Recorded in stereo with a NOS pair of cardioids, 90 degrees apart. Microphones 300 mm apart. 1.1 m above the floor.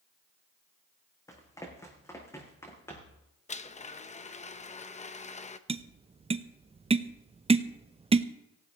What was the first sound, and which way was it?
Running footsteps, 10° left.